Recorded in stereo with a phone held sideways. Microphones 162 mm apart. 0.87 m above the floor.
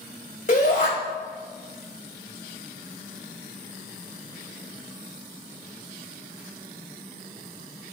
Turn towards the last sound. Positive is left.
turn(degrees=45)  # may be behind; listen again after turning